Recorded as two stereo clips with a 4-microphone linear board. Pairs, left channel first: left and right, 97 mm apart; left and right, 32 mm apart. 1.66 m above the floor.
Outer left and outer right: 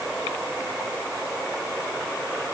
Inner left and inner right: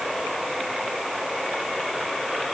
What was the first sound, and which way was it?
Only background noise.